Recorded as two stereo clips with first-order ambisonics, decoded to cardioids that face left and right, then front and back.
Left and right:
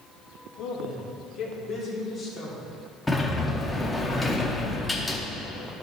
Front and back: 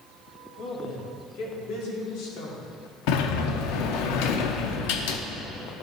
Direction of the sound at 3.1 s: 5° left.